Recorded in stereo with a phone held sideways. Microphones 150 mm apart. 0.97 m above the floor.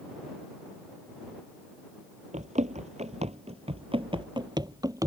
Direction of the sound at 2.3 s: 55° right (ahead or behind).